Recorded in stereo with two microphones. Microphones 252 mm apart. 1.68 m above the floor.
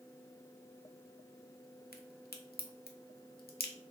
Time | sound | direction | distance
1.9 | a crack | 40° left (ahead or behind) | 0.5 m